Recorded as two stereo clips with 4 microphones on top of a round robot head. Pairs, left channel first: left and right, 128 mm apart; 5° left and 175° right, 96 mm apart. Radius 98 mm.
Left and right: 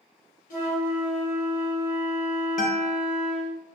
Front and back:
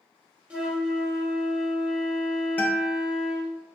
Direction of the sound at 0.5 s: 105° left.